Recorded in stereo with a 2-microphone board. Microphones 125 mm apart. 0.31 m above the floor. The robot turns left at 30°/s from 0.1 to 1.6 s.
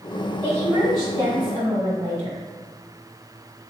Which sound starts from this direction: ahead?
A woman speaking, at 0.4 s.